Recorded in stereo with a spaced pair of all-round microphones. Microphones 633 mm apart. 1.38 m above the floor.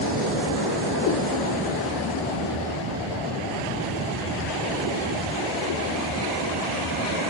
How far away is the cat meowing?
About 1.3 m.